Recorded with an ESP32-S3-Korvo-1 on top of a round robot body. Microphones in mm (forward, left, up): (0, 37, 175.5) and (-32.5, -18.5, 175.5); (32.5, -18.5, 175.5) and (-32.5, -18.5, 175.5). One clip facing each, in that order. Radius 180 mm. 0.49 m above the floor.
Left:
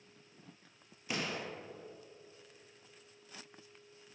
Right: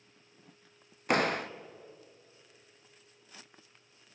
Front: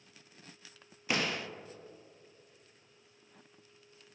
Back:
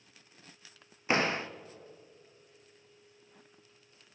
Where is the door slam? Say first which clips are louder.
Right 10 dB, back 5 dB; 125° right, 0.6 m.